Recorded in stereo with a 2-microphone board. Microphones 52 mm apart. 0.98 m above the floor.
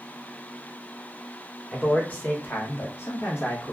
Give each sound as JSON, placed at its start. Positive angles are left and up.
{"t": 1.7, "sound": "a man speaking", "side_deg": 20, "distance_m": 1.1}